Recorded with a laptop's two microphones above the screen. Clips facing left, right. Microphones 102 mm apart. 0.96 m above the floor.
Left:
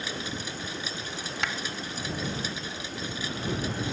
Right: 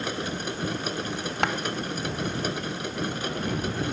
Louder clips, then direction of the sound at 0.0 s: Right 5 dB; 55° right (ahead or behind).